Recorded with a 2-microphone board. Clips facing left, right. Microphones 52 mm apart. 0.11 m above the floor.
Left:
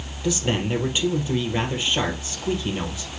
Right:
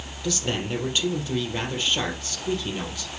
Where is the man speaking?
15° left (ahead or behind), 3 m.